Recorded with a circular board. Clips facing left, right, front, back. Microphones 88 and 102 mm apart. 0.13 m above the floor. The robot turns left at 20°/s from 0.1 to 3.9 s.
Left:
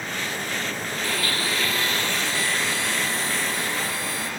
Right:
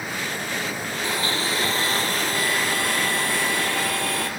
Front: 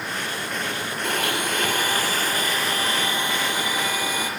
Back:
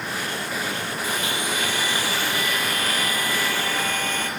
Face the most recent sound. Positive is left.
turn(degrees=-75)